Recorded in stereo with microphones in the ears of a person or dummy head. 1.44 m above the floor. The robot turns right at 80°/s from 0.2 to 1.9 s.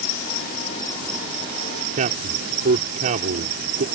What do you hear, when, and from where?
0.0 s an insect: 105° left; by 4.0 s 120° right
2.0 s a man speaking: 40° right (ahead or behind)